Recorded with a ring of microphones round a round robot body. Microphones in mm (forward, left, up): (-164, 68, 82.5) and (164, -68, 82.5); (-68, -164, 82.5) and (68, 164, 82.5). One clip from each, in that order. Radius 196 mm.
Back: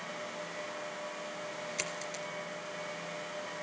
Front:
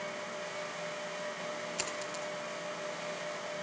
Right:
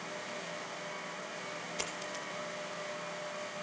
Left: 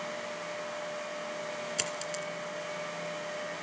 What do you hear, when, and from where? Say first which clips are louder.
1.8 s a dropped coin: front 1 dB, left 4 dB; 90° left, 3 m